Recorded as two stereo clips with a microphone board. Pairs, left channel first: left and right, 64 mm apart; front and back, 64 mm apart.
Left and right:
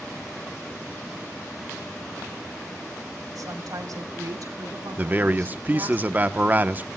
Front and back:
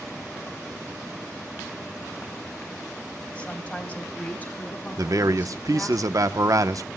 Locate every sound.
3.4 s a woman speaking: 70° right, 2.5 m; by 6.0 s 60° right, 4.5 m
5.0 s a man speaking: 150° right, 0.9 m